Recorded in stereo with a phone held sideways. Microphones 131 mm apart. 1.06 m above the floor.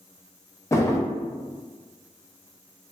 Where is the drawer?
20° left (ahead or behind), 0.5 m.